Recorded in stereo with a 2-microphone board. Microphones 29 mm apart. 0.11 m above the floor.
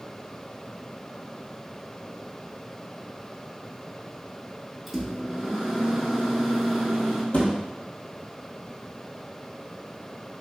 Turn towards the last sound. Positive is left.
turn(degrees=40)  # may be behind; listen again after turning